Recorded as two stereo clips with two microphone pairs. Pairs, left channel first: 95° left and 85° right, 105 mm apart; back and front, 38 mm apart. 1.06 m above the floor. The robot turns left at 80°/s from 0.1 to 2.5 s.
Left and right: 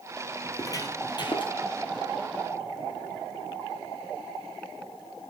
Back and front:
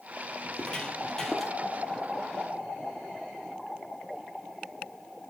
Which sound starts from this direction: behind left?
Footsteps, at 0.4 s.